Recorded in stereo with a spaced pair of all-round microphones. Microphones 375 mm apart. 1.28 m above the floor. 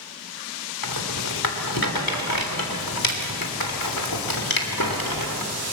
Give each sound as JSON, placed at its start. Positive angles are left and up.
{"t": 0.8, "sound": "a rattle", "side_deg": 55, "distance_m": 3.0}